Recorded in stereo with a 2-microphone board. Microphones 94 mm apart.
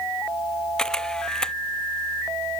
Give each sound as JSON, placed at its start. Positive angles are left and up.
{"t": 0.8, "sound": "a camera shutter", "side_deg": 10}